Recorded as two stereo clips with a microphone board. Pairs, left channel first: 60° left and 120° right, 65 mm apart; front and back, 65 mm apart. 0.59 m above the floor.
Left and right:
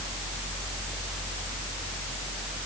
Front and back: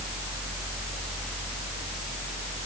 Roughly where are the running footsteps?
No running footsteps in this recording.